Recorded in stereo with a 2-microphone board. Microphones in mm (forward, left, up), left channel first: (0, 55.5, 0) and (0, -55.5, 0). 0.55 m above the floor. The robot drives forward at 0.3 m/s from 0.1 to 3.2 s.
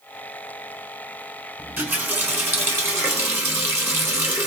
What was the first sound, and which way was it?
A running tap, 15° right (ahead or behind).